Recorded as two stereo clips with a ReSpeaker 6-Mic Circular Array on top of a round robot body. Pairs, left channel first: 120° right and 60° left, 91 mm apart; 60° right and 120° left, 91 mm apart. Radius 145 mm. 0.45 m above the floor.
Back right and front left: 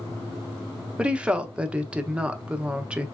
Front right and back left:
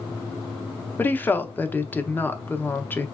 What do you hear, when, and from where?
1.0 s a woman speaking: 10° right, 0.8 m